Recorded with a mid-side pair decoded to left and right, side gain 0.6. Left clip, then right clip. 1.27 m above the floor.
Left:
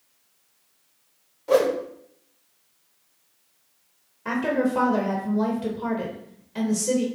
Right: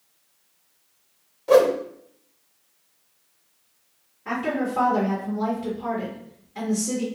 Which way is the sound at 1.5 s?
15° right.